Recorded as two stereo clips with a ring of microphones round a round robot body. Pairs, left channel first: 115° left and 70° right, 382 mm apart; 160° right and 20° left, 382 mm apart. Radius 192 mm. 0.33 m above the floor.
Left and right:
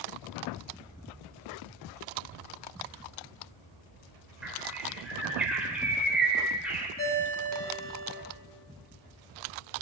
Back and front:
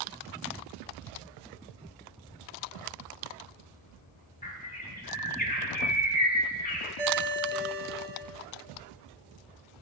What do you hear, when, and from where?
4.4 s a bird: 150° right, 0.7 m
7.0 s a ringtone: 100° left, 1.0 m